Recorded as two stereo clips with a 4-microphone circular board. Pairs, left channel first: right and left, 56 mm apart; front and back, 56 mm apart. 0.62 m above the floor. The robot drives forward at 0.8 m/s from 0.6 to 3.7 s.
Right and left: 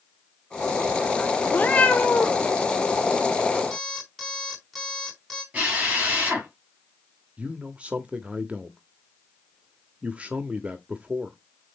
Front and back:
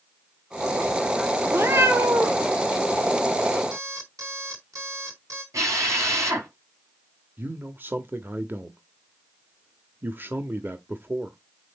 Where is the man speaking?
145° left, 0.8 m.